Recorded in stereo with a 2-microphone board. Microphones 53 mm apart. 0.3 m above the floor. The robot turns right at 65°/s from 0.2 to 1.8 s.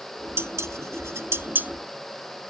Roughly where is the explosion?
No explosion in this recording.